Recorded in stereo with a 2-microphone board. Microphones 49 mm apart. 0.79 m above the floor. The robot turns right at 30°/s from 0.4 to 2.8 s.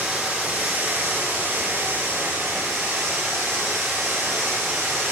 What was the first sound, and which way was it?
Running water, 150° right.